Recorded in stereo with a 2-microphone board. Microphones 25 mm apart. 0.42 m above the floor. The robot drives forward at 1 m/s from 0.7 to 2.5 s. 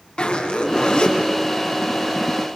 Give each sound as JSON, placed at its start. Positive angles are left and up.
{"t": 0.2, "sound": "a zipper", "side_deg": 45, "distance_m": 4.5}